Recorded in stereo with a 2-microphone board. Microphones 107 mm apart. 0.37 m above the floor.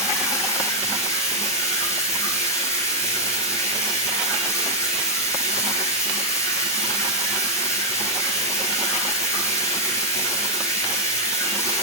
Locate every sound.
0.0 s running water: 25° left (ahead or behind), 5.5 m